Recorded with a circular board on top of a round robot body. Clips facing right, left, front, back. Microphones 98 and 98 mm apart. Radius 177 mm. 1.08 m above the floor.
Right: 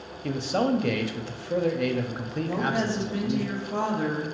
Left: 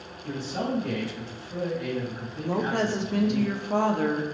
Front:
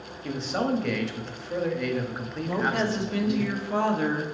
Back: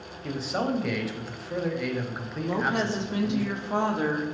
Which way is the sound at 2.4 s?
115° left.